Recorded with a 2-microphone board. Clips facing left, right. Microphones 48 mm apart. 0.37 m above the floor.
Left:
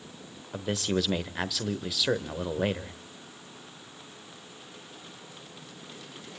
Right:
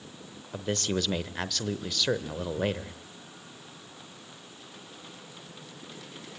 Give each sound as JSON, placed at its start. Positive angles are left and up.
{"t": 0.5, "sound": "a man speaking", "side_deg": 5, "distance_m": 1.0}